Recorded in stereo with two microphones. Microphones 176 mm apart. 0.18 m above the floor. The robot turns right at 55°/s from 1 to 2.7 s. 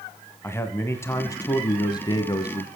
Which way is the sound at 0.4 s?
15° left (ahead or behind).